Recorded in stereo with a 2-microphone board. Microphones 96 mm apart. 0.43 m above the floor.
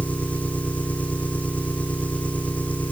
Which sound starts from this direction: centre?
An engine running, at 0.0 s.